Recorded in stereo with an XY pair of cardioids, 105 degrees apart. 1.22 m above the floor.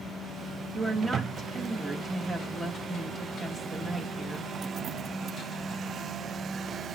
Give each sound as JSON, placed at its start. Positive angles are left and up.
{"t": 0.7, "sound": "a woman speaking", "azimuth_deg": -20, "distance_m": 1.2}